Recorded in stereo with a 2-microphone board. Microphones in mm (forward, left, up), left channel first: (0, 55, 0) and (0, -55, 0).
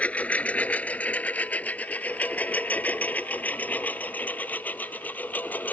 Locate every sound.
0.0 s a lawn mower: 10° left (ahead or behind); by 5.7 s 15° left (ahead or behind)